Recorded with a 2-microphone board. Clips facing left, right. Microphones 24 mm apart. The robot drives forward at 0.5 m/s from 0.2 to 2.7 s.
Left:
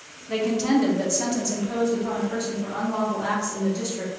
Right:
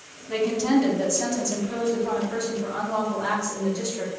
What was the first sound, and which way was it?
A woman speaking, 10° left (ahead or behind).